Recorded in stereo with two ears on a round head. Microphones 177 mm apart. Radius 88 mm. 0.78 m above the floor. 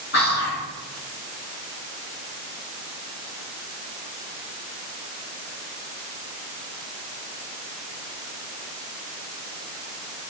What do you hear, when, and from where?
0.1 s whispering: 55° left (ahead or behind), 1.8 m